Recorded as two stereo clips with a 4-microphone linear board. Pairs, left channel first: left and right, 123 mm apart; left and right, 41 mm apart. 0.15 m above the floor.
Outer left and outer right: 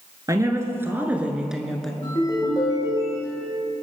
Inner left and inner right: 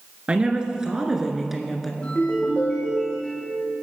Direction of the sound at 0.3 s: 25° right (ahead or behind).